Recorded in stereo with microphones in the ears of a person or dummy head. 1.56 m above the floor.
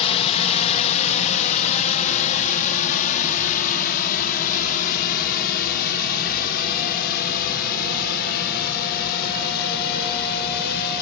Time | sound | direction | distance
0.0 | a drone | 30° left (ahead or behind) | ?